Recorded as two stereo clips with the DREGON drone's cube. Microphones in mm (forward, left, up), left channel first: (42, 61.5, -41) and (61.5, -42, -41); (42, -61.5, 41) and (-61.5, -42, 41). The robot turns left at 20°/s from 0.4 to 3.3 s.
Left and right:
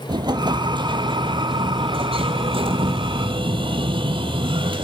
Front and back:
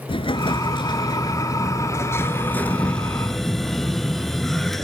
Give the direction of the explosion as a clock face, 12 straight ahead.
1 o'clock.